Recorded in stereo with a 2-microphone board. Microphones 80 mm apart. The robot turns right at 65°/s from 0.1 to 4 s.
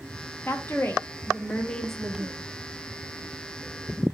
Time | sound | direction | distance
0.5 | a woman speaking | 30° left (ahead or behind) | 0.5 m